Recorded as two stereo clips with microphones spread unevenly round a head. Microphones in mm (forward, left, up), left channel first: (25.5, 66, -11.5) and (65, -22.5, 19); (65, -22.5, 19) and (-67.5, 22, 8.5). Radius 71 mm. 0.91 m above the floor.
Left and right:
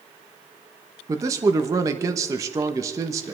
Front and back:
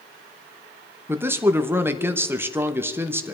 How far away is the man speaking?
About 0.9 m.